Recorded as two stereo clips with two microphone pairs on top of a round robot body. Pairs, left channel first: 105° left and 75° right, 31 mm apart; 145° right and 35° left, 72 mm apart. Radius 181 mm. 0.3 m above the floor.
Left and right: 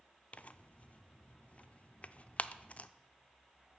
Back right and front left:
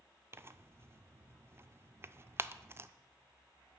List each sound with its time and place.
0.3 s tearing paper: 75° left, 0.6 m